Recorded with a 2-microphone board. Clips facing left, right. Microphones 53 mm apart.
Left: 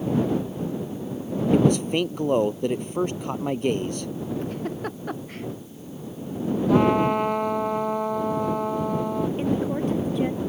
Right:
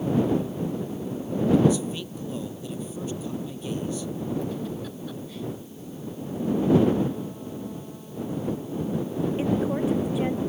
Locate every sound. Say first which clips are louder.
1.5 s a man speaking: left 2 dB; 60° left (ahead or behind)
4.4 s a giggle: left 2 dB; 50° left (ahead or behind)
6.7 s a trumpet: left 3 dB; 75° left (ahead or behind)
9.4 s a woman speaking: even; 5° right (ahead or behind)